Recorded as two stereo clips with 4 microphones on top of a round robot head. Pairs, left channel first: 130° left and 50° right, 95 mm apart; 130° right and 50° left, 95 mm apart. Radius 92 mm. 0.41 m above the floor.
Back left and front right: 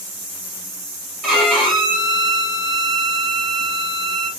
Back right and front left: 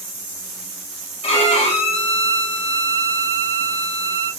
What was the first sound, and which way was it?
A violin, 145° right.